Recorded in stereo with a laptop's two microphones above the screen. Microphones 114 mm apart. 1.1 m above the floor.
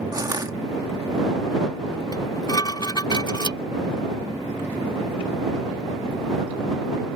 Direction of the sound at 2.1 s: 40° left (ahead or behind).